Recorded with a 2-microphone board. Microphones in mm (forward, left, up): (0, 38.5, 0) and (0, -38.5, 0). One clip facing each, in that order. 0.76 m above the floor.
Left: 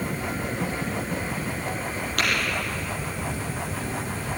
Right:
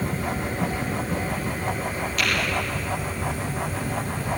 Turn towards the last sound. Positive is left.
turn(degrees=55)  # may be behind; listen again after turning